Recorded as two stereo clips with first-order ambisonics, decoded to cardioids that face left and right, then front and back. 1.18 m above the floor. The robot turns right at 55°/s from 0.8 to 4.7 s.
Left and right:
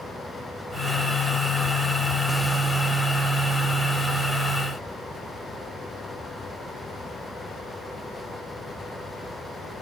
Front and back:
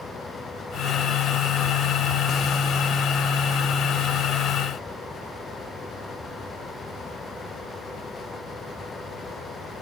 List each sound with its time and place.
Only background noise.